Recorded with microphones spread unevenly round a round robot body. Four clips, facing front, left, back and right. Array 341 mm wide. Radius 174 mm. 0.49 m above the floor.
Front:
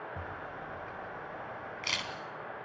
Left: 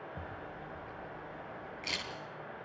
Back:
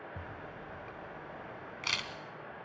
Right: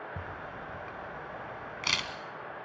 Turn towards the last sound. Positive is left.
turn(degrees=-100)